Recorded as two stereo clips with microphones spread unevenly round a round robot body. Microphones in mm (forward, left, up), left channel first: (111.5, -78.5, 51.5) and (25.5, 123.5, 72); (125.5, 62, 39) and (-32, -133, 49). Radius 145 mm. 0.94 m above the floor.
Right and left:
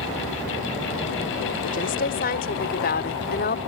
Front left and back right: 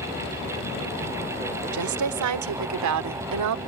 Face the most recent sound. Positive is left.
turn(degrees=-120)